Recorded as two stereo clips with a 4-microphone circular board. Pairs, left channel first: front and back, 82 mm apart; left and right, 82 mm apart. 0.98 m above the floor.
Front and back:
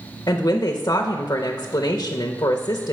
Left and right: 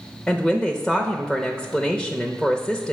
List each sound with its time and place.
0.3 s a woman speaking: 5° left, 0.6 m